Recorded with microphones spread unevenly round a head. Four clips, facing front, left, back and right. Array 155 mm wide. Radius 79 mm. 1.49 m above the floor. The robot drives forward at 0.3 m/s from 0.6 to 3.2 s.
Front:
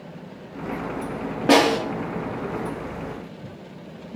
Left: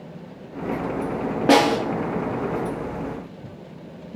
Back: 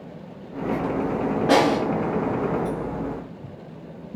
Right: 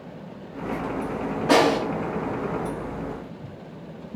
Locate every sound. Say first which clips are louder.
1.5 s a snare drum: left 2 dB, front 2 dB; 55° left, 0.8 m; by 1.8 s 60° left, 0.8 m